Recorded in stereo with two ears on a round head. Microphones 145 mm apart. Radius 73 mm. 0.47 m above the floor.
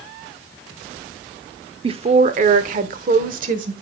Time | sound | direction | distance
1.8 | a woman speaking | 35° right (ahead or behind) | 0.9 m